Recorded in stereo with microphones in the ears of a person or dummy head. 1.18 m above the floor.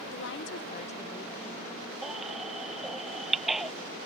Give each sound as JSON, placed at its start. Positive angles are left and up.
{"t": 0.1, "sound": "a woman speaking", "side_deg": 50}
{"t": 2.0, "sound": "a baby crying", "side_deg": -5}